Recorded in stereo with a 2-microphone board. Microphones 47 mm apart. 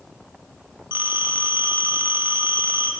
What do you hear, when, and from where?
0.9 s a phone ringing: 45° right (ahead or behind), 1.0 m